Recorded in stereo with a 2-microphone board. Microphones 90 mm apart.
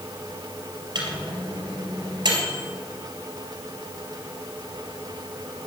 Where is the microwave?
55° right (ahead or behind), 3 m.